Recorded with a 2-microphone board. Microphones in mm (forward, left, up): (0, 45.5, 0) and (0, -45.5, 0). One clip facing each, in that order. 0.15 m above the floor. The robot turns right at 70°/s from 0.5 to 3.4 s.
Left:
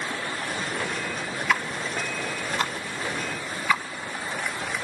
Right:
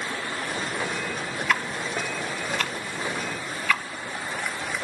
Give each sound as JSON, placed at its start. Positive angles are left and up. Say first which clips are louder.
{"t": 1.5, "sound": "ticking", "louder": "even", "side_deg": 5, "distance_m": 0.9}